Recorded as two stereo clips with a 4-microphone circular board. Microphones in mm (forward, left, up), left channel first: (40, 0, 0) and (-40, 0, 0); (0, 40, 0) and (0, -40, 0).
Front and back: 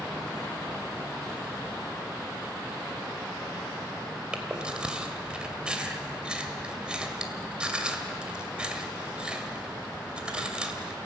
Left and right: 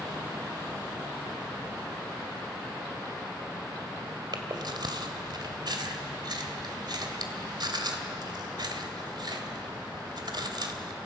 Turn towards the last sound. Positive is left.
turn(degrees=-105)